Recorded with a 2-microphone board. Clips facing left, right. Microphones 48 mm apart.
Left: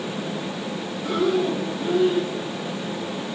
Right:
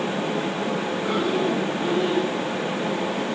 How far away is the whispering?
I don't hear whispering.